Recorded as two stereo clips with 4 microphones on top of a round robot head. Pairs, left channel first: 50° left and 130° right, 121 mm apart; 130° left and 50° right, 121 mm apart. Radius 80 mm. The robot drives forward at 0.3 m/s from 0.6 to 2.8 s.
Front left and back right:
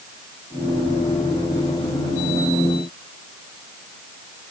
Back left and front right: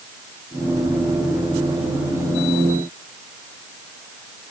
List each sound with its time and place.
Only background noise.